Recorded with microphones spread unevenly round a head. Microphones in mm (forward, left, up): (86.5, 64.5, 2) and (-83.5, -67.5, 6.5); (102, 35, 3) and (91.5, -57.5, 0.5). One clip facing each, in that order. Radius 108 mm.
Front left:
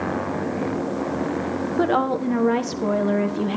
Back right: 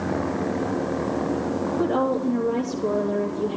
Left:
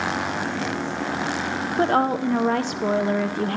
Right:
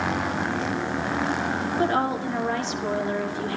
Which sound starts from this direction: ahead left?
A woman speaking, at 1.8 s.